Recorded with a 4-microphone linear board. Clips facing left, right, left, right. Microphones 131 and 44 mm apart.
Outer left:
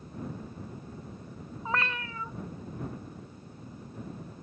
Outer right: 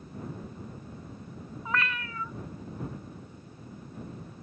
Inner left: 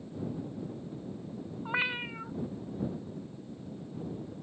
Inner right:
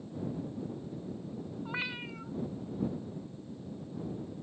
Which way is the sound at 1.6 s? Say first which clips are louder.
Even, inner left 7 dB; 30° left (ahead or behind).